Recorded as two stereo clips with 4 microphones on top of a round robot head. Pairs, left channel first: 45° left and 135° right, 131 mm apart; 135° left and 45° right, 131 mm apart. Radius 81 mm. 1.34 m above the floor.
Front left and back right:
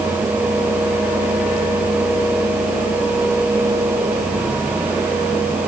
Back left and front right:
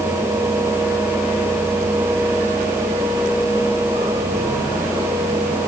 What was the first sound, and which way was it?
Only background noise.